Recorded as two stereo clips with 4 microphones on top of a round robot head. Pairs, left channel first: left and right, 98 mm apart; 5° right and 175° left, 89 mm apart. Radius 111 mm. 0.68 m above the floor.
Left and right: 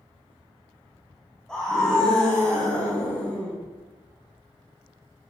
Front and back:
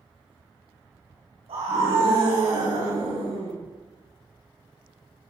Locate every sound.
1.5 s a scream: 175° left, 6.5 m; by 3.6 s 170° left, 7.5 m